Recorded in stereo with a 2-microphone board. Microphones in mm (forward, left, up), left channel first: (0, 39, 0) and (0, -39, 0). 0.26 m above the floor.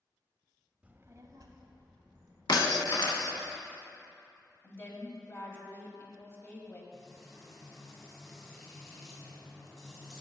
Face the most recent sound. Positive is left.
turn(degrees=5)  # may be behind; listen again after turning